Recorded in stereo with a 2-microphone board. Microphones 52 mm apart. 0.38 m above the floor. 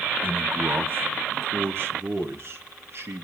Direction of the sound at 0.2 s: 40° right (ahead or behind).